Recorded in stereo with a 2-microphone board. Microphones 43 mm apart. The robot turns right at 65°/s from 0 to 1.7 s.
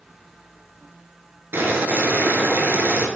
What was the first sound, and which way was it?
Boiling, 60° right (ahead or behind).